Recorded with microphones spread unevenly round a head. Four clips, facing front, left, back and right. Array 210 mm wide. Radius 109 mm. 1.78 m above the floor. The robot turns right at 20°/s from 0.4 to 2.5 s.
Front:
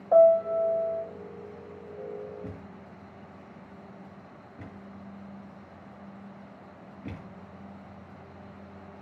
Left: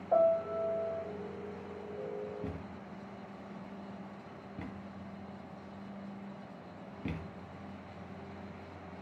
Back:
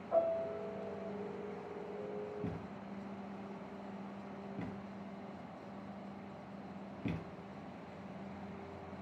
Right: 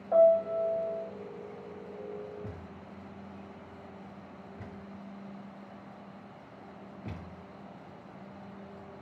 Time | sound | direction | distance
0.1 | a piano | 10° left | 3 m
2.4 | a thud | 130° left | 3 m